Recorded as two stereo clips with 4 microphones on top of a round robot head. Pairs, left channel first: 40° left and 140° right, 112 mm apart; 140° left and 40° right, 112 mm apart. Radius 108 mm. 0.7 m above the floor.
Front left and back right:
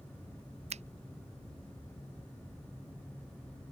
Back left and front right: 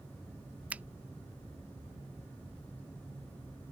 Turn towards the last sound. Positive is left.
turn(degrees=-120)